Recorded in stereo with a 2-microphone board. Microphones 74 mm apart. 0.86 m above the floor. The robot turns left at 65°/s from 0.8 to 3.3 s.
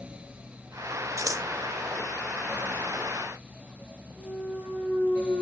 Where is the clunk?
10° right (ahead or behind), 7 m.